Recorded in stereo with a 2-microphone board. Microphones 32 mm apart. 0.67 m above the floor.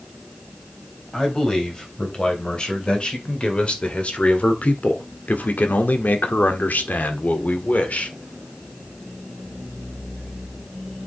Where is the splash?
No splash in this recording.